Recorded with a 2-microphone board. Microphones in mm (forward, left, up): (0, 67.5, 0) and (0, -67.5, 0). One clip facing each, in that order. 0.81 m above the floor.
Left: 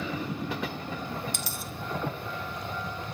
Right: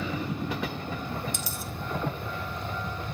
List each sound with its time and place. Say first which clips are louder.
1.3 s a dropped coin: right 1 dB; 65° left (ahead or behind), 1.3 m